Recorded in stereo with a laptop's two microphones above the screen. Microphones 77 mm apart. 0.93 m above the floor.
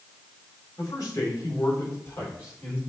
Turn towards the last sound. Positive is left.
turn(degrees=35)  # may be behind; listen again after turning